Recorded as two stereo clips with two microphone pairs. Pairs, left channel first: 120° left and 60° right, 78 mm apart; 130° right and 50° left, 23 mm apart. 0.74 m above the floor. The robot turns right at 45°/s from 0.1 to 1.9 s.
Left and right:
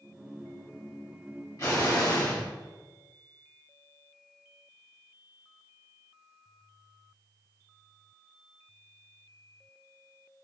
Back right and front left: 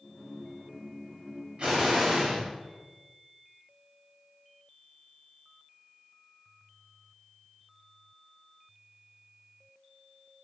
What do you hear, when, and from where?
1.6 s an explosion: 80° left, 1.2 m; by 2.4 s 95° left, 1.2 m